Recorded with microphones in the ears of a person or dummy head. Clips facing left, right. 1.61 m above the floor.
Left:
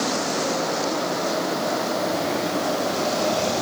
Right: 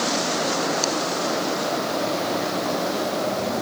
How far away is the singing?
I don't hear singing.